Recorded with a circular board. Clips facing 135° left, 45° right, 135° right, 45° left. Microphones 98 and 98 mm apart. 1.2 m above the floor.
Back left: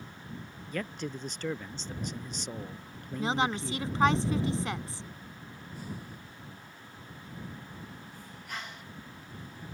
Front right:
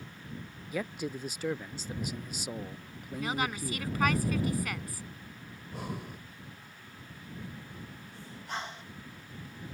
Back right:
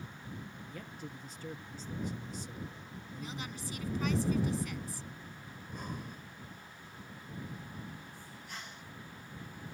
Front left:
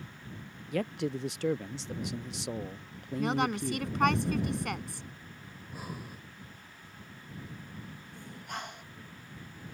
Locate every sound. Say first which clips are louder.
0.7 s a man speaking: front right 1 dB, front left 18 dB; 35° left
3.2 s a woman speaking: back left 4 dB, front left 15 dB; 70° left
5.5 s breathing: front right 3 dB, even; 40° right
8.1 s breathing: front right 5 dB, front left 6 dB; 15° left